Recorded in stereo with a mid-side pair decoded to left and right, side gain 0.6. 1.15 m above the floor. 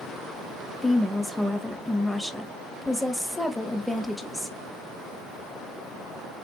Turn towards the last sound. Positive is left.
turn(degrees=0)